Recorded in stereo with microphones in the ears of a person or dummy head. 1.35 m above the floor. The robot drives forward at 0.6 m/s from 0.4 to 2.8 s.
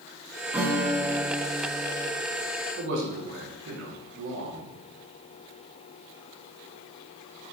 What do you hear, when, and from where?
0.5 s a guitar: 5° right (ahead or behind), 1.3 m
2.8 s a man speaking: 65° right (ahead or behind), 3 m